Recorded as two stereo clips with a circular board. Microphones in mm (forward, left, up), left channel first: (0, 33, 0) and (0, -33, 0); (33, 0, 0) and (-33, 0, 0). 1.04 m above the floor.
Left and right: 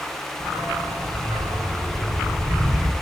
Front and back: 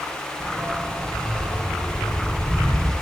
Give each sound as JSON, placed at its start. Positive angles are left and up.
{"t": 0.4, "sound": "a dog barking", "azimuth_deg": -100, "distance_m": 5.5}